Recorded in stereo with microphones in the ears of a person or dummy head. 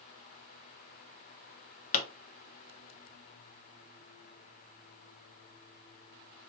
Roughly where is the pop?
Left.